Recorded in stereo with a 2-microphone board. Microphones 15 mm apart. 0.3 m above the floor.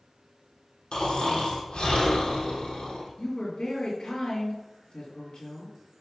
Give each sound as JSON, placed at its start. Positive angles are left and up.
{"t": 0.9, "sound": "snoring", "side_deg": 85, "distance_m": 3.0}
{"t": 3.2, "sound": "a woman speaking", "side_deg": 65, "distance_m": 4.0}